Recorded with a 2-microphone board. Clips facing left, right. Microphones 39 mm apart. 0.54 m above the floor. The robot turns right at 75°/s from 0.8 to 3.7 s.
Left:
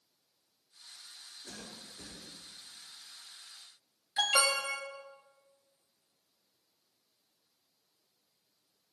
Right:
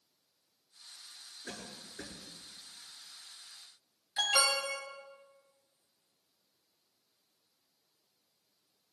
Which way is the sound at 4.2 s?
15° left (ahead or behind).